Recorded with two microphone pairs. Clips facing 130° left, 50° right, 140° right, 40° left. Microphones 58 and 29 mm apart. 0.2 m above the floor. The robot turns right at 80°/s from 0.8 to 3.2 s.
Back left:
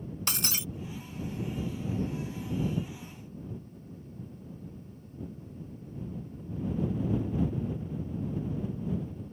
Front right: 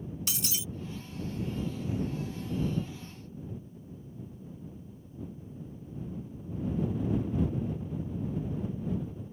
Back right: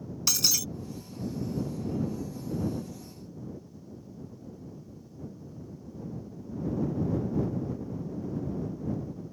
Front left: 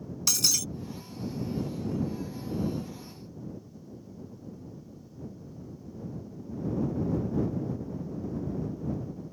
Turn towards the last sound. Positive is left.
turn(degrees=-30)